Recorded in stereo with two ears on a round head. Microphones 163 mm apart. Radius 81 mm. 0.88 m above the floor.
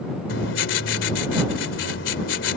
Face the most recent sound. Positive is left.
turn(degrees=75)  # may be behind; listen again after turning